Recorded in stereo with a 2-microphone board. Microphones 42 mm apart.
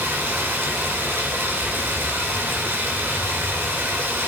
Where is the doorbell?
No doorbell in this recording.